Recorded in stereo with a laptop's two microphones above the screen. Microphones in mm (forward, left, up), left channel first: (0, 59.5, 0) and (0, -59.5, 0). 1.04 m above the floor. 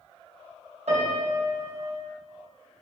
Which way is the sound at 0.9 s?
75° right (ahead or behind).